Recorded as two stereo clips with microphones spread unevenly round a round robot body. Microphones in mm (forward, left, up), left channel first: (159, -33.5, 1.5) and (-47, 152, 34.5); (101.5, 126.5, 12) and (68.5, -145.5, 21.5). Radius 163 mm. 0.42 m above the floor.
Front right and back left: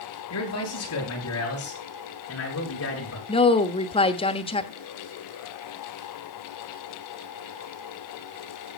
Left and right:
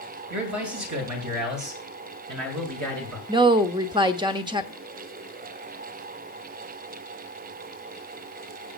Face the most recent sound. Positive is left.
turn(degrees=-40)